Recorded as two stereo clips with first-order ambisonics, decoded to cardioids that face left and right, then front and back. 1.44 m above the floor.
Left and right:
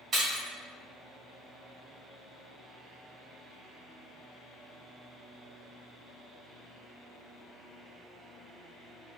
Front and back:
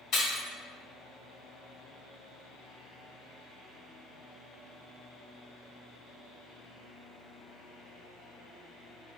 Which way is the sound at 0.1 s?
30° right.